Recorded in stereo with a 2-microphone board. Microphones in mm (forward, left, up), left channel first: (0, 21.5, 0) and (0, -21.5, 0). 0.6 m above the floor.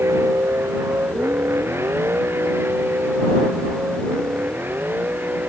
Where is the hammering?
I don't hear hammering.